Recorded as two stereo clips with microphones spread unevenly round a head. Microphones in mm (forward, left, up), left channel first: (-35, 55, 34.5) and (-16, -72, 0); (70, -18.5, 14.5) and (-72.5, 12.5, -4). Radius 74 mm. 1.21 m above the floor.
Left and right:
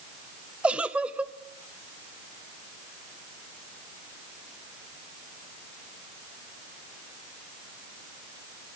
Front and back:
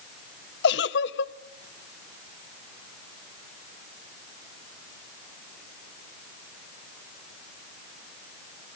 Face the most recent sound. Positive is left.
turn(degrees=-5)